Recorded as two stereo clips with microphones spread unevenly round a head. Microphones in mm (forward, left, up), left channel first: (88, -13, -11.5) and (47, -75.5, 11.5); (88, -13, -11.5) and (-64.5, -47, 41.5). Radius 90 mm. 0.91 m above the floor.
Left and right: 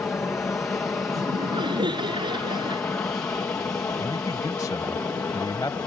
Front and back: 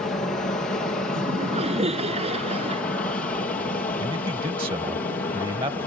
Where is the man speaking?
125° left.